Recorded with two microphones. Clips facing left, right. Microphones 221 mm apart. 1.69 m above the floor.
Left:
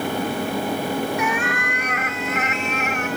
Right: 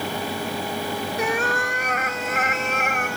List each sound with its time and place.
1.2 s a cat meowing: 35° right (ahead or behind); by 3.2 s 50° right (ahead or behind)